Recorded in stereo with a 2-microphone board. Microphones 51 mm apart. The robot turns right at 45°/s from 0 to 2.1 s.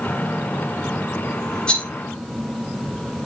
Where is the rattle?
20° left (ahead or behind), 1.4 m; by 1.9 s 25° left (ahead or behind), 1.4 m.